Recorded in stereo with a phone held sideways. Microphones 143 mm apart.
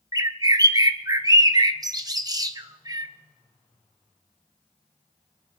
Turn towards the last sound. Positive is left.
turn(degrees=-25)  # may be behind; listen again after turning